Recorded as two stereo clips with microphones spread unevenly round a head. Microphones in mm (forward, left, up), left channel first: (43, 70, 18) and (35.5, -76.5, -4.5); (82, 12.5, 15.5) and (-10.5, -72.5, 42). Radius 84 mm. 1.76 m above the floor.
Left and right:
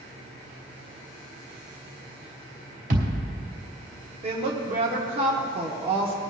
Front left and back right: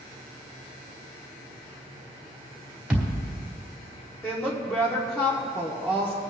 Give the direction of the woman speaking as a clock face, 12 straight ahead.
1 o'clock.